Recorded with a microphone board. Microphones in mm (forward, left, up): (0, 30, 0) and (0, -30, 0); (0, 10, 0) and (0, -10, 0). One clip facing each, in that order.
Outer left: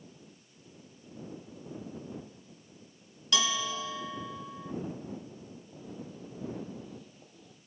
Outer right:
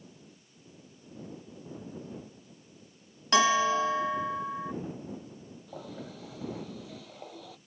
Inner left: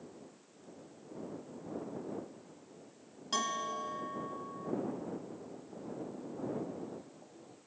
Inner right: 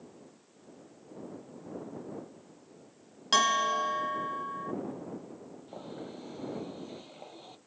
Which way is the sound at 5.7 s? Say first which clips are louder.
Outer right 4 dB, inner right 1 dB; 85° right.